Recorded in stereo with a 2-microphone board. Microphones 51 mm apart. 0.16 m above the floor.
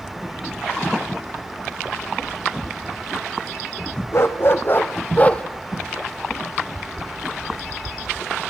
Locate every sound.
4.1 s a dog barking: 55° left (ahead or behind), 2.0 m; by 5.4 s 25° left (ahead or behind), 1.2 m